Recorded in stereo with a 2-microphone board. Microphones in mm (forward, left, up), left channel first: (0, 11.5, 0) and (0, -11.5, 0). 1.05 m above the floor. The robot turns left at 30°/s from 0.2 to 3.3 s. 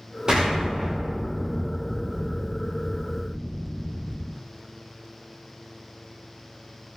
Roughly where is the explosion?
Behind right.